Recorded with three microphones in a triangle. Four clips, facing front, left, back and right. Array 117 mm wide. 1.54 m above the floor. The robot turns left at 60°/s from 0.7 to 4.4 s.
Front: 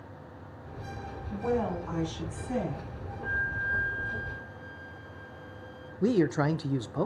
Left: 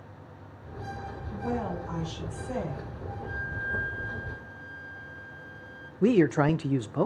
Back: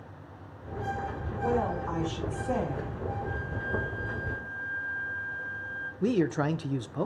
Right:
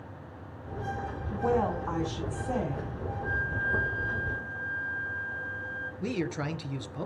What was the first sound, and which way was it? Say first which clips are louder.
A woman speaking: right 5 dB, back 1 dB; 75° right.